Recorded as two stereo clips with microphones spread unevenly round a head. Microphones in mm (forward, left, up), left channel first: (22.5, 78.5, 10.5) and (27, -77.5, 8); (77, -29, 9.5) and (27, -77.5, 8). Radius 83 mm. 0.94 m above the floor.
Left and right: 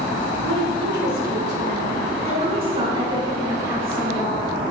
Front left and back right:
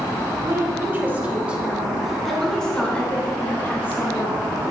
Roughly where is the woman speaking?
Right.